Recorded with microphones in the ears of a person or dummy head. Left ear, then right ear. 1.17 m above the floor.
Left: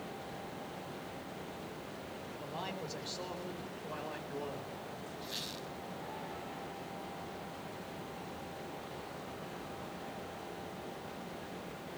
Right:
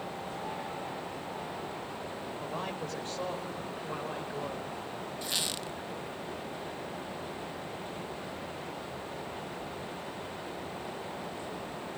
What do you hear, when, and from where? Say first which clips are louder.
2.4 s a man speaking: right 4 dB; 30° right (ahead or behind), 5.5 m; by 4.8 s 20° right (ahead or behind), 5.5 m
5.2 s a squeak: right 10 dB; 40° right (ahead or behind), 0.8 m